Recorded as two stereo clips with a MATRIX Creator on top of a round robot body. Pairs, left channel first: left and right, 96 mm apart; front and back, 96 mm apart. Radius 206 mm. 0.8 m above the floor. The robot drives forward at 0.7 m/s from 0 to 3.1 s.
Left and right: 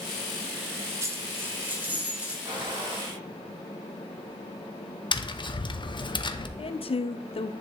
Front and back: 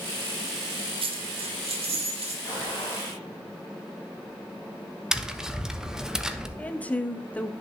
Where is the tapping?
95° left, 1.1 m.